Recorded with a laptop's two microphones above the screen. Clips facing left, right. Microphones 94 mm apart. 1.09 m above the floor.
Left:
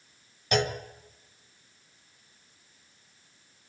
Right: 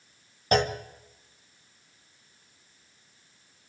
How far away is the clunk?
About 1.3 m.